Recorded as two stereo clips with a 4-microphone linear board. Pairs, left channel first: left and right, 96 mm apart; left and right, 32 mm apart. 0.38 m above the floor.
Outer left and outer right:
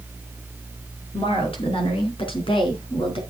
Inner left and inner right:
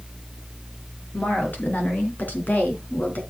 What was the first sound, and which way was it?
A woman speaking, 80° left.